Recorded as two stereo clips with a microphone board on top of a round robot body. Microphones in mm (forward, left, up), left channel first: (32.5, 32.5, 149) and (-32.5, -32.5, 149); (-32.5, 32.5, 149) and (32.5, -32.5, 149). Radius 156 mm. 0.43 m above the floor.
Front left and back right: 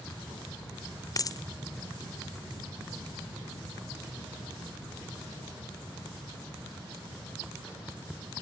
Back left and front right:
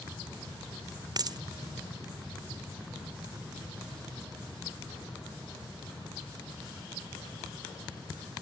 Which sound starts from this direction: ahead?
A dropped coin, at 1.2 s.